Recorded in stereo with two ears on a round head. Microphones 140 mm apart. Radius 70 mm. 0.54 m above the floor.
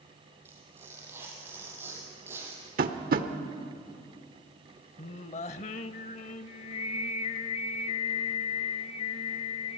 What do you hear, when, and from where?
0.5 s tearing paper: 15° right (ahead or behind), 5 m
2.8 s tapping: 60° right (ahead or behind), 1.1 m
5.0 s singing: 45° left (ahead or behind), 0.6 m